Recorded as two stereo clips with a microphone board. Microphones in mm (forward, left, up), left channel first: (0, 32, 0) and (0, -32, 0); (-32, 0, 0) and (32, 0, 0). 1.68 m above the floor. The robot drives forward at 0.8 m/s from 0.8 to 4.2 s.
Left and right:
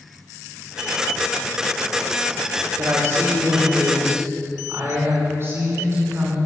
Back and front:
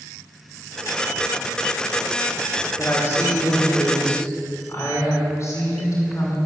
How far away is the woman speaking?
About 5 m.